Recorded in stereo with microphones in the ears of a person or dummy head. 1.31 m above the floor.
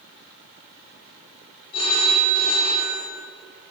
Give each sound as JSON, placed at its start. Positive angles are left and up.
{"t": 1.7, "sound": "a phone ringing", "side_deg": 30, "distance_m": 3.0}